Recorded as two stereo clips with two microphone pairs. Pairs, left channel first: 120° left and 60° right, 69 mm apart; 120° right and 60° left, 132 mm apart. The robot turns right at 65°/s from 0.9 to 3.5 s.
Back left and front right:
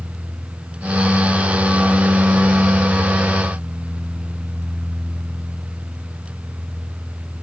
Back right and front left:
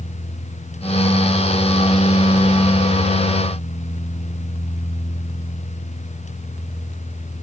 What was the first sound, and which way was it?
Only background noise.